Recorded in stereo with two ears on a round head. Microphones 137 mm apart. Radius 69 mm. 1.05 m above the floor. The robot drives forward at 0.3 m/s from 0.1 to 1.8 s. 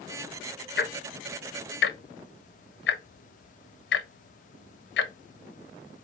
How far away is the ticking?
About 0.6 m.